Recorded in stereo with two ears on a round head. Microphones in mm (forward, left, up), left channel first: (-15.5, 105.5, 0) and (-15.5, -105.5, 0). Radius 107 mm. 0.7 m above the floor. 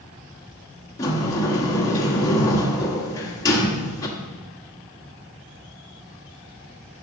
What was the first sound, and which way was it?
A sliding door, 15° left (ahead or behind).